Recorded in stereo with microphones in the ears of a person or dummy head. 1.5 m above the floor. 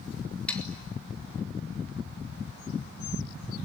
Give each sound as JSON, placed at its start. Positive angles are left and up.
{"t": 0.5, "sound": "sawing", "side_deg": 10, "distance_m": 3.0}